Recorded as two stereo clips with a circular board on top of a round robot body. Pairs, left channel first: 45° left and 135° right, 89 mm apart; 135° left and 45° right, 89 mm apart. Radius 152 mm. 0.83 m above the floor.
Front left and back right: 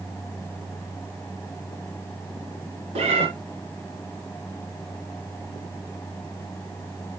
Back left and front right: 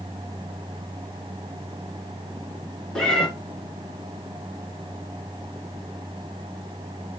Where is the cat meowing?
140° right, 1.5 m.